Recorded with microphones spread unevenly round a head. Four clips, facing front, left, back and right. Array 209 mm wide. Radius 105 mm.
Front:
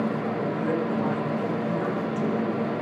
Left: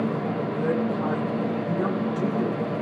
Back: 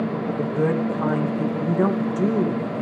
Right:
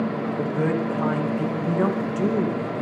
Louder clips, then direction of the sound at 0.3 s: Right 2 dB, back 4 dB; 150° right.